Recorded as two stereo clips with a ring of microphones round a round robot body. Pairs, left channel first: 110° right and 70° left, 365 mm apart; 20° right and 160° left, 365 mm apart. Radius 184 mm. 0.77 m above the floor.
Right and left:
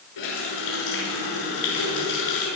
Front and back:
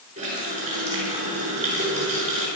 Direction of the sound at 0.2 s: 130° right.